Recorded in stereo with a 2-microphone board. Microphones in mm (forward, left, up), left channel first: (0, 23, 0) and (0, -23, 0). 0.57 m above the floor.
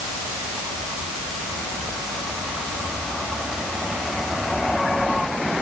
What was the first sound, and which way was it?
Only background noise.